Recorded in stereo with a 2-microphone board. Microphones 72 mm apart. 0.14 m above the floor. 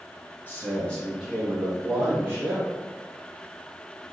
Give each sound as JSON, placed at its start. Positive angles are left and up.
{"t": 0.5, "sound": "a man speaking", "side_deg": 25, "distance_m": 1.5}